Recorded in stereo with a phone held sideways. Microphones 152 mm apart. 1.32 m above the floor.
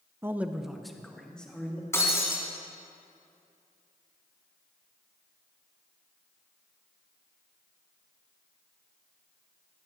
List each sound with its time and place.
0.2 s a man speaking: 15° right (ahead or behind), 0.6 m; by 1.8 s 10° left (ahead or behind), 2.5 m
1.9 s breaking glass: 15° left (ahead or behind), 2.5 m